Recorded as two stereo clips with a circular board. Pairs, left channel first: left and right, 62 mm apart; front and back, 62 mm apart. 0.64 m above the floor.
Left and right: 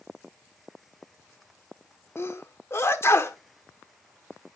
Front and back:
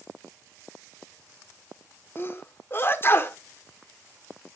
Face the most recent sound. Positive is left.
turn(degrees=50)